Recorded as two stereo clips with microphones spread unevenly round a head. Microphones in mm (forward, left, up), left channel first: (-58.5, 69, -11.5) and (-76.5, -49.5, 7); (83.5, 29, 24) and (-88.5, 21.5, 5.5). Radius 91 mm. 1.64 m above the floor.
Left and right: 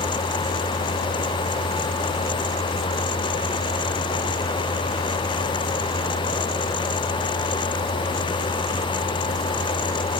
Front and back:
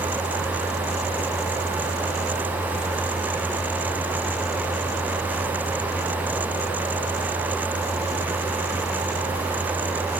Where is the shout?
I don't hear a shout.